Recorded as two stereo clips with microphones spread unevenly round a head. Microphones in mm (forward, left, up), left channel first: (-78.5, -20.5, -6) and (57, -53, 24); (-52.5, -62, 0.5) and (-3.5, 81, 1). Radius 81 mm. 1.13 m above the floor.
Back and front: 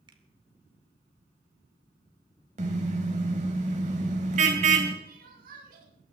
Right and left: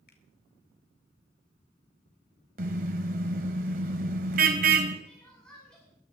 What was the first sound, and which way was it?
A finger snap, 70° right.